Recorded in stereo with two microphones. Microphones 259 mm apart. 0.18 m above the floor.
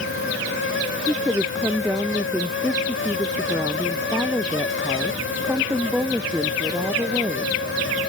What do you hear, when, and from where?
1.1 s a woman speaking: 5° right (ahead or behind)